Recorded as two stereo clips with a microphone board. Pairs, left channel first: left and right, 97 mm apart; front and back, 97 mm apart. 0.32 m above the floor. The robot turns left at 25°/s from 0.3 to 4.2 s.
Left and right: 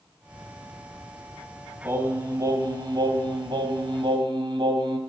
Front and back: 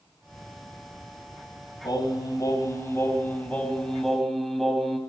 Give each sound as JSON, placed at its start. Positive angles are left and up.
{"t": 1.8, "sound": "singing", "azimuth_deg": -30, "distance_m": 2.5}